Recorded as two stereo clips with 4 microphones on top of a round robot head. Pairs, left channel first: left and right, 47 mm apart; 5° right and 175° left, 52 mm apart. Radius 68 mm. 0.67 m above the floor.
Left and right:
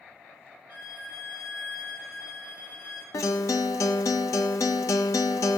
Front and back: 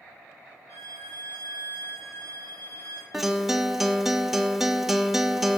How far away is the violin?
About 4.5 m.